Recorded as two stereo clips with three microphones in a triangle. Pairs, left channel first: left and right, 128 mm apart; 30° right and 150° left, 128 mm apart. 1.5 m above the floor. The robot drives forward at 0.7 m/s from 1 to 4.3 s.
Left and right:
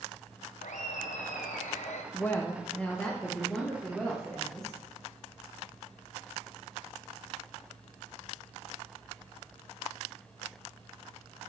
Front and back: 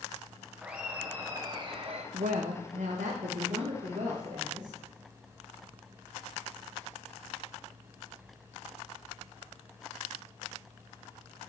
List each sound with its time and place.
0.6 s laughter: 70° left, 0.9 m; by 2.0 s 115° left, 1.0 m
2.1 s a woman speaking: 160° left, 0.8 m; by 4.8 s 175° left, 2 m